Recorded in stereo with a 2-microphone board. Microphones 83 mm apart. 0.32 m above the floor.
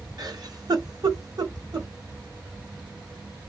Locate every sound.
0.2 s a giggle: 55° right (ahead or behind), 1.0 m